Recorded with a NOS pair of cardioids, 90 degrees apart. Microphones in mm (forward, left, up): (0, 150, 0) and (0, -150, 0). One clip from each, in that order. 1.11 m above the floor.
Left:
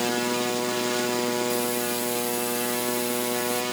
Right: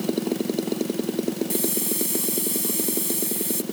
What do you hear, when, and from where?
1.5 s a hiss: 60° right